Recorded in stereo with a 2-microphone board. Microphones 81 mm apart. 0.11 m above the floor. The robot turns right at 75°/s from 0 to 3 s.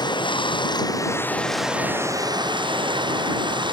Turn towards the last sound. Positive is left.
turn(degrees=-75)